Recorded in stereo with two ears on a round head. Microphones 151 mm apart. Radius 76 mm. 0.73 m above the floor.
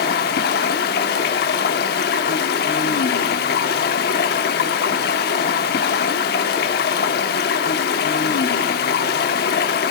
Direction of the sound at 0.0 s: 65° left (ahead or behind).